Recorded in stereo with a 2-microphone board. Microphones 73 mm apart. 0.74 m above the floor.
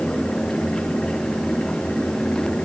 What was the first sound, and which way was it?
Only background noise.